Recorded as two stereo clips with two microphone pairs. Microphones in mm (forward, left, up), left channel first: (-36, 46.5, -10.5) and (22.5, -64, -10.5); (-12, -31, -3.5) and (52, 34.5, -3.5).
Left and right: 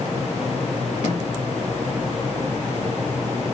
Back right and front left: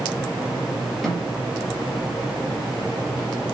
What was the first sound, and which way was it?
A snare drum, 140° left.